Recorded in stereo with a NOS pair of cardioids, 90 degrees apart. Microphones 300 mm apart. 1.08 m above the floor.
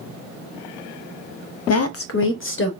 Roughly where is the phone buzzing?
I don't hear a phone buzzing.